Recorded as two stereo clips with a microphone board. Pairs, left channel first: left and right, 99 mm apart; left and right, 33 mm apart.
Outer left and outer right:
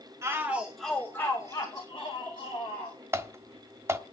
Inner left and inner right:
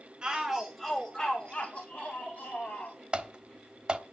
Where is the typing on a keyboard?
25° right (ahead or behind), 1.2 m.